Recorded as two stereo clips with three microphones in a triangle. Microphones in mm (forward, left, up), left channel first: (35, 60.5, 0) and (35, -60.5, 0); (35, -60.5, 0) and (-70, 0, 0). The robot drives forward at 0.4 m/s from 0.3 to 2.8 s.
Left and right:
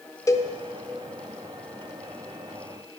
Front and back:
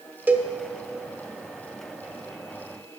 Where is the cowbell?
95° left, 0.7 m; by 0.5 s 110° left, 0.7 m.